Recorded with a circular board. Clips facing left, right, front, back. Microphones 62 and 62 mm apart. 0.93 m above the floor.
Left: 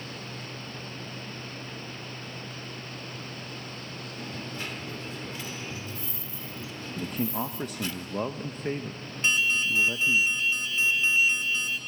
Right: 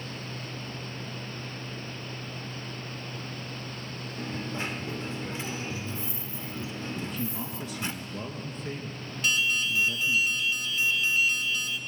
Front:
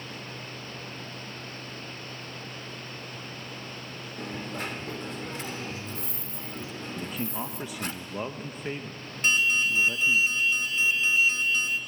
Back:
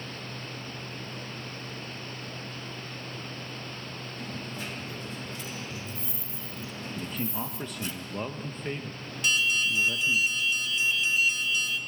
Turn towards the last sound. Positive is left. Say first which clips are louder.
# left 2 dB, front 2 dB
turn(degrees=40)